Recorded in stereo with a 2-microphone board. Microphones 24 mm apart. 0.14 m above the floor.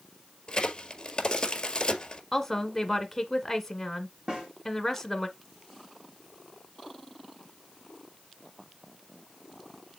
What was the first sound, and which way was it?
A crack, 35° left (ahead or behind).